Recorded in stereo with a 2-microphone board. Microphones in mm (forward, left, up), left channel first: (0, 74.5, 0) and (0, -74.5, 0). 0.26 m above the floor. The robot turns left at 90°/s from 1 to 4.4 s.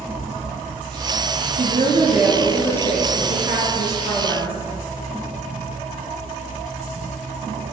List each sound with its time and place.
1.5 s a woman speaking: 95° right, 4 m; by 4.6 s 5° left, 4 m